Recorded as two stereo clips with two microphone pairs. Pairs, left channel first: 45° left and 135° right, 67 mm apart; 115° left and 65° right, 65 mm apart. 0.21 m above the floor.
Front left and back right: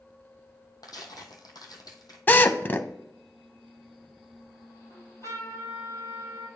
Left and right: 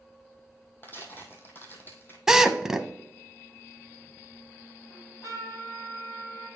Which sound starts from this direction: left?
A trumpet, at 4.9 s.